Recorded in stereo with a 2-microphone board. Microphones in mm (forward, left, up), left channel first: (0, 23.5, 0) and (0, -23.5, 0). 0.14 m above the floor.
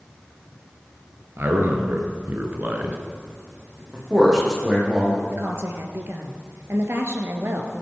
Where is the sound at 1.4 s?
55° right (ahead or behind), 2.5 m; by 3.0 s 35° right (ahead or behind), 1.8 m.